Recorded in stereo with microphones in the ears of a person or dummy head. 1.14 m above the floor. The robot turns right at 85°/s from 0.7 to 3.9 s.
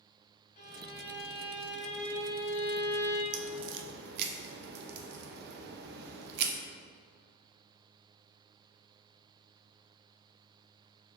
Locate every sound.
0.6 s a violin: 50° left, 2.5 m; by 3.2 s 95° right, 2.5 m
3.3 s a crack: 75° right (ahead or behind), 0.7 m; by 6.5 s 60° right (ahead or behind), 0.7 m